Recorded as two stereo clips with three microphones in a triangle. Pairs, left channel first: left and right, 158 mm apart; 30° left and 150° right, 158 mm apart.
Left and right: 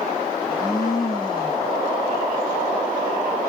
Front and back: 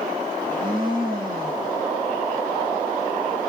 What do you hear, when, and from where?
0.3 s a blender: 155° left, 9 m